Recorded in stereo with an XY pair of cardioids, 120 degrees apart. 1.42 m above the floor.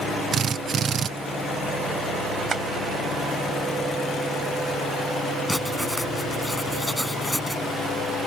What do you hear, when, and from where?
0.3 s a drill: 45° right
2.5 s tapping: 40° right
5.5 s writing: 5° left